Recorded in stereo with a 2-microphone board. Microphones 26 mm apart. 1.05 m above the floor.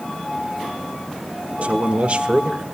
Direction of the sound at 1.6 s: 55° right (ahead or behind).